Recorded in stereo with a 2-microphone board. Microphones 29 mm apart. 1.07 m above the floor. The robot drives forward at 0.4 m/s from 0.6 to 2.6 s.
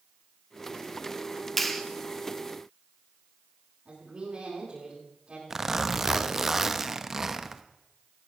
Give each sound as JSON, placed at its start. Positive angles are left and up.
{"t": 1.6, "sound": "a clap", "side_deg": 5, "distance_m": 1.0}
{"t": 3.9, "sound": "a woman speaking", "side_deg": -35, "distance_m": 9.5}
{"t": 5.5, "sound": "a zipper", "side_deg": -15, "distance_m": 0.8}